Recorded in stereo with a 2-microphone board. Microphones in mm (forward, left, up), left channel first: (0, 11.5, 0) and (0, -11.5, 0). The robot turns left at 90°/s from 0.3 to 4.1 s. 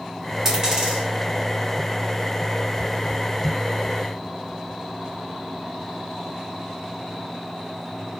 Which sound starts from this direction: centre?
A dropped coin, at 0.5 s.